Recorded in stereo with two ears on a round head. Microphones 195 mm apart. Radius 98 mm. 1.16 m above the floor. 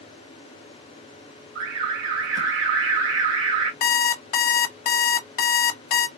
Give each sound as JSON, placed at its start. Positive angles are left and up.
{"t": 1.6, "sound": "an alarm", "side_deg": -60, "distance_m": 1.6}
{"t": 3.8, "sound": "an alarm clock", "side_deg": 40, "distance_m": 0.6}